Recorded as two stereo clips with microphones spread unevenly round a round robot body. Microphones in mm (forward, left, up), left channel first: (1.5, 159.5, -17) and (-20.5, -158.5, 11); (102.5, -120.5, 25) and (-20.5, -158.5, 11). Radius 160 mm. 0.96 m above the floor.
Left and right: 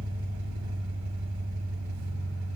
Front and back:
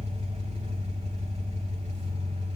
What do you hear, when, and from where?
0.0 s an engine running: 135° right, 4 m